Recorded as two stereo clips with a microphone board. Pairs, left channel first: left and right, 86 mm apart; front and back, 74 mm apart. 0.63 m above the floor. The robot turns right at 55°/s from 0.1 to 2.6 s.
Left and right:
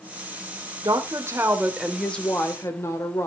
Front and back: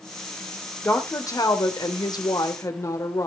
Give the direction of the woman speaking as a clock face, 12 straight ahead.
2 o'clock.